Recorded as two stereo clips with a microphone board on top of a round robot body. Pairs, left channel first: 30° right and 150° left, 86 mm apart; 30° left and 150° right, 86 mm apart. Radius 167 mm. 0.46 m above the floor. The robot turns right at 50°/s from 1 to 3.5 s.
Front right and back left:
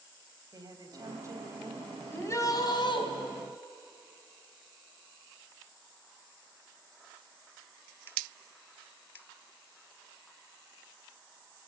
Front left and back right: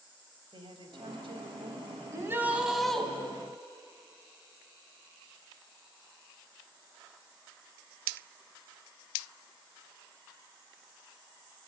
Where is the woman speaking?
170° right, 4 m; by 2.0 s 120° right, 4 m.